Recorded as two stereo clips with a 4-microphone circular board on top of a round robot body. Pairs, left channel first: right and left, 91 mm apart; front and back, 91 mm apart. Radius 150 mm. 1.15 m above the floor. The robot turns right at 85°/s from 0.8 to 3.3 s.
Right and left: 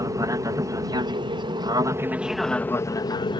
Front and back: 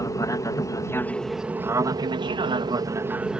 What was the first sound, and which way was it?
An aircraft, 45° left.